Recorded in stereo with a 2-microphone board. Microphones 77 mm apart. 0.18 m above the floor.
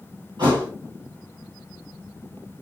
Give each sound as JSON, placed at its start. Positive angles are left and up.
{"t": 0.4, "sound": "a thud", "side_deg": -80, "distance_m": 2.5}